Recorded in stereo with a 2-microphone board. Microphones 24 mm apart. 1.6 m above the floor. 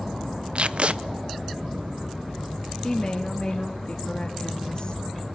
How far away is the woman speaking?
About 2.5 m.